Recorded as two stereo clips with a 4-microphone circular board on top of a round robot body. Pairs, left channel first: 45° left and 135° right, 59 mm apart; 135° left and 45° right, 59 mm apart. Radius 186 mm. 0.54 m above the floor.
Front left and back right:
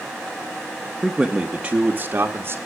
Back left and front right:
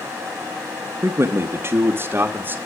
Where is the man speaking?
50° right, 1.1 m; by 2.6 s 95° right, 1.4 m.